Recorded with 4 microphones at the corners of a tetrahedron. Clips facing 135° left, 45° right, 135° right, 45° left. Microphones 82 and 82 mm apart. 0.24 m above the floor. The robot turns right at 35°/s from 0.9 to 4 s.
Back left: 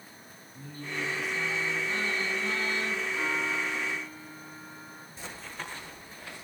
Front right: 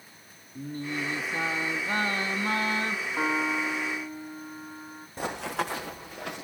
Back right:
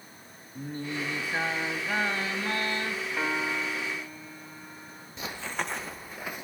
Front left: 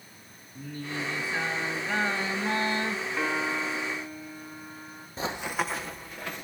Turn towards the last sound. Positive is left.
turn(degrees=-55)